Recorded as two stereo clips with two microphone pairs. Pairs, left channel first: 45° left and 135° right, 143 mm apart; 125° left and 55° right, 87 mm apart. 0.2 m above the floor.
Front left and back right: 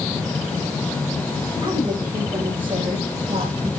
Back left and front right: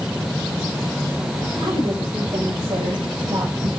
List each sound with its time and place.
1.6 s a woman speaking: 80° right, 9 m; by 3.7 s 85° right, 8 m